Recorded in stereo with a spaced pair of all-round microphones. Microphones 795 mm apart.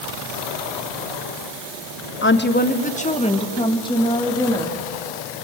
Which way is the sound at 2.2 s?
15° left (ahead or behind).